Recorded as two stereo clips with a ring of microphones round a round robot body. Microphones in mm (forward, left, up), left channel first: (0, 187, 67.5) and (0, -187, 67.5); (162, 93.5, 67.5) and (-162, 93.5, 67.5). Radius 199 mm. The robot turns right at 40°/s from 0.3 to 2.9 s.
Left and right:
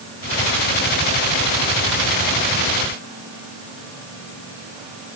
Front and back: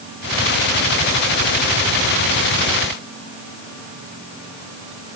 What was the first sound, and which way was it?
Only background noise.